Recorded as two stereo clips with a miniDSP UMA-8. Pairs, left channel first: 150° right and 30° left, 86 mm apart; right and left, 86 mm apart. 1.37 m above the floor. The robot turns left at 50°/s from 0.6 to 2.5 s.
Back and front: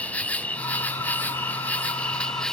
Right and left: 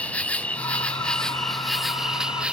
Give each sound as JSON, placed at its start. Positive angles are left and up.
{"t": 0.0, "sound": "an insect", "azimuth_deg": -120}